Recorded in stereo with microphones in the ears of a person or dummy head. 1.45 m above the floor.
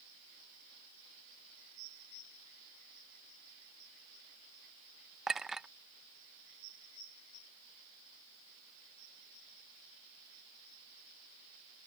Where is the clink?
5° right (ahead or behind).